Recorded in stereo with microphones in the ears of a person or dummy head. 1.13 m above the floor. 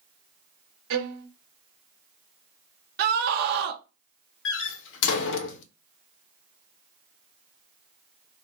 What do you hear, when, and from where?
0.9 s a violin: 65° right (ahead or behind), 0.8 m
3.0 s a scream: 50° right (ahead or behind), 0.6 m
4.5 s a door slam: 65° left (ahead or behind), 0.6 m